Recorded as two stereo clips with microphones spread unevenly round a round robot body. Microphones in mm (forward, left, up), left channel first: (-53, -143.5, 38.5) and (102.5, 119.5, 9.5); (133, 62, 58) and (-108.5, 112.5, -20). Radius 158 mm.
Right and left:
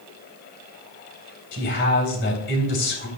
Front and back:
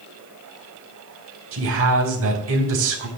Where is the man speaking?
175° right, 3.5 m.